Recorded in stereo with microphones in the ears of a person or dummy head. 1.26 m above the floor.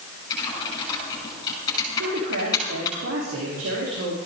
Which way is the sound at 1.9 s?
75° right (ahead or behind).